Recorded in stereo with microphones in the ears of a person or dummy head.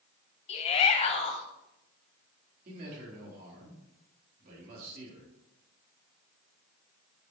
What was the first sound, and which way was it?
A shout, 35° left (ahead or behind).